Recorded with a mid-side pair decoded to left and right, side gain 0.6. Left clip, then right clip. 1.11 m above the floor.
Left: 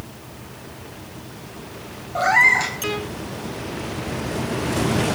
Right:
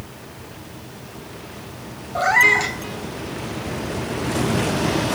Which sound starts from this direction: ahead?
A cat meowing, at 2.1 s.